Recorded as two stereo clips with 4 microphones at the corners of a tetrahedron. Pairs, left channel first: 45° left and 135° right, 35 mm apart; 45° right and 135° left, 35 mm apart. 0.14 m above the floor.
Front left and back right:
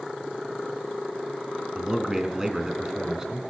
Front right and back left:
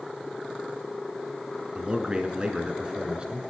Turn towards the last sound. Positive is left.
turn(degrees=165)